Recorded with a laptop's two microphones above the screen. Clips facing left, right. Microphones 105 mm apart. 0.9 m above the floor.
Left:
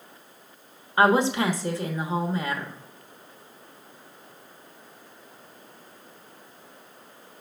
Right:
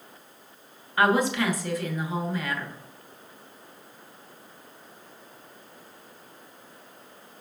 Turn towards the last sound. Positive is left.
turn(degrees=30)  # may be behind; listen again after turning